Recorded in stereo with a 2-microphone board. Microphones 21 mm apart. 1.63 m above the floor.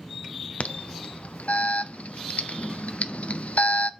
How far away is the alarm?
About 0.6 m.